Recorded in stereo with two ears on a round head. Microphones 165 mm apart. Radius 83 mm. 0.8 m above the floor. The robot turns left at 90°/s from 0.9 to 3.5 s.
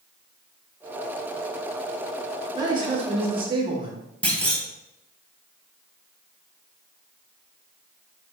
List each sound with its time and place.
2.5 s a man speaking: 35° right, 0.7 m; by 4.0 s 120° right, 0.7 m
4.2 s a clunk: 10° left (ahead or behind), 0.6 m